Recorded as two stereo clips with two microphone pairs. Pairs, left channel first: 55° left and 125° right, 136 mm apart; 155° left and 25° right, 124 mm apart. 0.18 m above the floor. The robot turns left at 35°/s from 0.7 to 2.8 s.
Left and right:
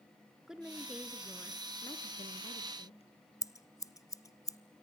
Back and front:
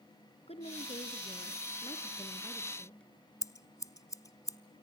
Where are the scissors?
110° left, 0.6 m.